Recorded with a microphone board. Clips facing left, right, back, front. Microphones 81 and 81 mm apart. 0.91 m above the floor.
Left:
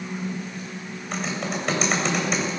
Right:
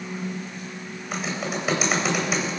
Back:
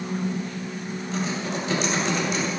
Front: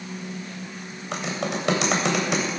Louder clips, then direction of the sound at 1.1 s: Even, front 1 dB; 5° right.